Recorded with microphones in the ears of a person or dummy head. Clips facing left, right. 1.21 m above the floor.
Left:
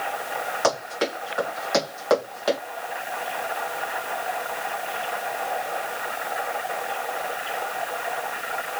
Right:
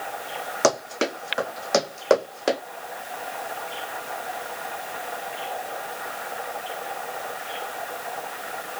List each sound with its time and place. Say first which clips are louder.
0.6 s running footsteps: right 3 dB; 40° right (ahead or behind), 4 m; by 2.6 s 30° right (ahead or behind), 3 m